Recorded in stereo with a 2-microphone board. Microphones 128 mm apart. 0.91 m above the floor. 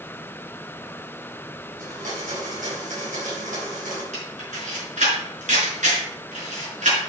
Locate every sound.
1.8 s a blender: 85° right, 5 m
4.1 s a camera shutter: 70° right (ahead or behind), 5.5 m